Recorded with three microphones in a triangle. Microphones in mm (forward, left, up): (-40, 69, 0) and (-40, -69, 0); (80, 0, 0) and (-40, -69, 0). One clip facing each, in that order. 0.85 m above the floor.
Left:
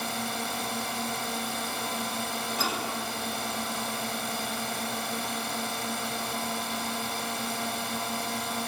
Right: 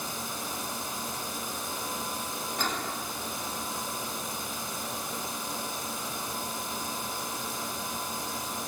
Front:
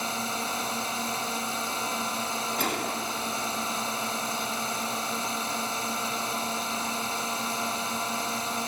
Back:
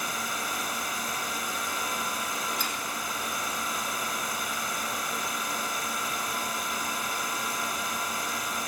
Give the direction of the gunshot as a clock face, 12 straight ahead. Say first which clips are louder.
Even, front 5 dB; 12 o'clock.